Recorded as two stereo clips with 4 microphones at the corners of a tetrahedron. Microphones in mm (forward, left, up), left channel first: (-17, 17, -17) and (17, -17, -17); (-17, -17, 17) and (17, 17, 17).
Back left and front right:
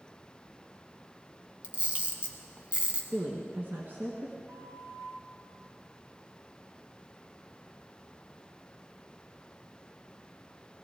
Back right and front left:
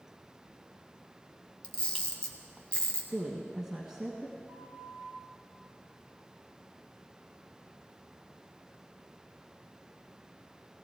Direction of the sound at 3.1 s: 30° right.